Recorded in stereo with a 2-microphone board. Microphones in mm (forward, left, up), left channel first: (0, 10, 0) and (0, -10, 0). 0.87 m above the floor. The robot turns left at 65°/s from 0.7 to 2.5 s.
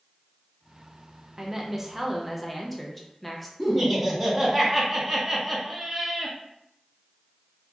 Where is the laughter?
10° right (ahead or behind), 1.1 m.